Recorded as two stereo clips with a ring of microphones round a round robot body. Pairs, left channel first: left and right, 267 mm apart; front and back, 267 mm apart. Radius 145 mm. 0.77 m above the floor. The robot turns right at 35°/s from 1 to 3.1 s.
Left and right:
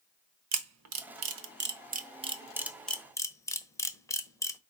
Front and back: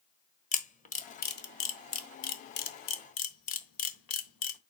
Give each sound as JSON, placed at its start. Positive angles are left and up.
{"t": 0.5, "sound": "a camera shutter", "azimuth_deg": -65, "distance_m": 1.1}